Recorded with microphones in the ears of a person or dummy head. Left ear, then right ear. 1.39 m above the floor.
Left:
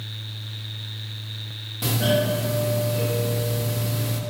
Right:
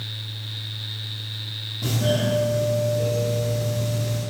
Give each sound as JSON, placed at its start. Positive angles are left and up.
{"t": 1.8, "sound": "a doorbell", "side_deg": 50, "distance_m": 2.5}